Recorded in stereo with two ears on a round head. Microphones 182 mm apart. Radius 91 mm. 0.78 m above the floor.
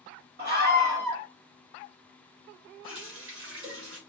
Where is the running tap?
70° right (ahead or behind), 1.7 m.